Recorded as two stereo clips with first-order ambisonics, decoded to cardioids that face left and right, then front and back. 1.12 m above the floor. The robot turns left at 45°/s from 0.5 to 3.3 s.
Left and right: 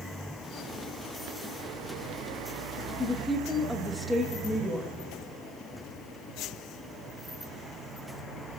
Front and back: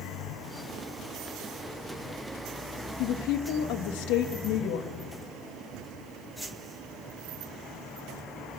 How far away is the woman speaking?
About 1.0 m.